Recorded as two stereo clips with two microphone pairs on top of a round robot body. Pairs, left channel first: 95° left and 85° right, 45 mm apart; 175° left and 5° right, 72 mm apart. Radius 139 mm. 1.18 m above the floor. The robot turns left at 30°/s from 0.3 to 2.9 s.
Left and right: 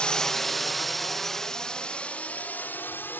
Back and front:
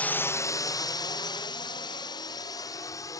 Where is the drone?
105° left; by 3.2 s 130° left.